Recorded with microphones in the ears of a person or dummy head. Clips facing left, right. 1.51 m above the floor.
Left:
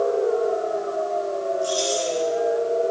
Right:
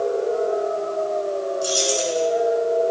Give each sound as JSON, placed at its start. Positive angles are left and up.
{"t": 1.6, "sound": "keys jangling", "side_deg": -85, "distance_m": 6.0}